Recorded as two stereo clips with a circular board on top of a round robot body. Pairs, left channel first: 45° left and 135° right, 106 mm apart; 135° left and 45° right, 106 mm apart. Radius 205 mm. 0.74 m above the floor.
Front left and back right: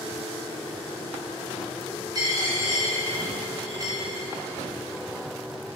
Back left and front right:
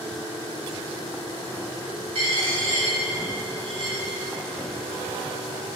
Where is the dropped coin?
80° right, 1.7 m.